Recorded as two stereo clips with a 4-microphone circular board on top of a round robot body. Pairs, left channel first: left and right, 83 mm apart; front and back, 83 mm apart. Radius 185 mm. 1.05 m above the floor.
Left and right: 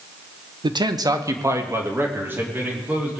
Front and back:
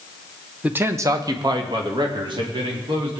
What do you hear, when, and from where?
0.6 s a man speaking: 105° right, 1.1 m; by 3.2 s 165° right, 4 m